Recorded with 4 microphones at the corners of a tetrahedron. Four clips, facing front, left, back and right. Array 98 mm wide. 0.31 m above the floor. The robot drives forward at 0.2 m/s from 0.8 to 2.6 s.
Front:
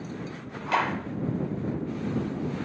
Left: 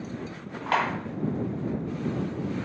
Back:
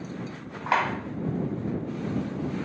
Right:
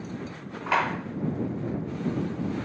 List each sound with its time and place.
0.7 s a clap: 160° left, 1.8 m